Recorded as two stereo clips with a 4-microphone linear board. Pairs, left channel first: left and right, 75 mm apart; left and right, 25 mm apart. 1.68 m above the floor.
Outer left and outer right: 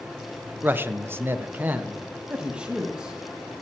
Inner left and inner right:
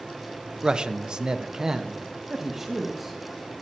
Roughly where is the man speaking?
Right.